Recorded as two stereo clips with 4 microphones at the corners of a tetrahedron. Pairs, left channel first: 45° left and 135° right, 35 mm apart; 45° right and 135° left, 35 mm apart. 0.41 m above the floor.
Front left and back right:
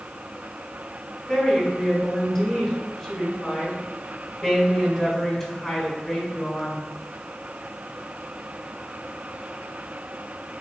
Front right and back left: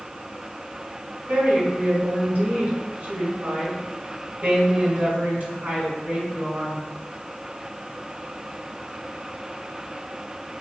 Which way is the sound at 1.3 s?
125° left.